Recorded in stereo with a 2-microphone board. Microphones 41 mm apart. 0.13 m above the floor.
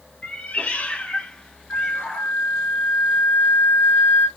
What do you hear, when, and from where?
0.2 s a cat meowing: 30° left (ahead or behind), 0.8 m; by 2.3 s 5° left (ahead or behind), 1.3 m
1.7 s a flute: 50° left (ahead or behind), 0.9 m